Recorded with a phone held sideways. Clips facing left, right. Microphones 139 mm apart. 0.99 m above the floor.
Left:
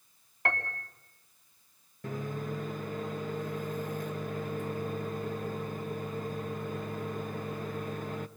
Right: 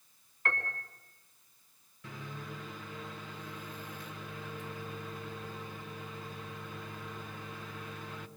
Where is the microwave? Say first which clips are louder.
Left 9 dB; 50° left (ahead or behind), 1.0 m.